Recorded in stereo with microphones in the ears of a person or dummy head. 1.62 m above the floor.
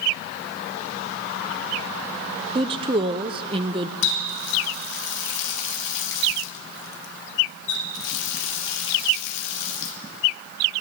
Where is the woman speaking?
30° right (ahead or behind), 0.7 m.